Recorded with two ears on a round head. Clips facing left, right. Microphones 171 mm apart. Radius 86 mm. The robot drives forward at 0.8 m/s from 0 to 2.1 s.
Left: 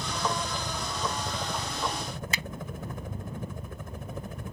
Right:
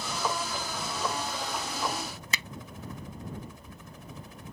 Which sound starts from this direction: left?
A helicopter, at 0.0 s.